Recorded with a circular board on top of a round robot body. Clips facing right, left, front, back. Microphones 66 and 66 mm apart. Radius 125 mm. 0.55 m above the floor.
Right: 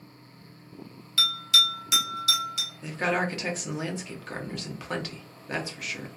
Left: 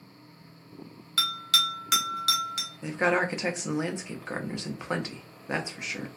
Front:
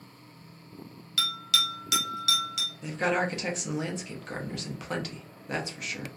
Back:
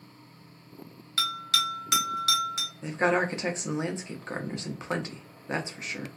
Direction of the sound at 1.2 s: 130° left.